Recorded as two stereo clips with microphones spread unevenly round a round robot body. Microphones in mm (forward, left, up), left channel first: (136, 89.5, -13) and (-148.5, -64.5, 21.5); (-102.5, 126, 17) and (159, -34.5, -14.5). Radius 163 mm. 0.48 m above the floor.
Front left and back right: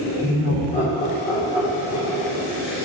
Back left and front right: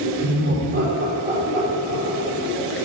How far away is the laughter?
About 1.7 m.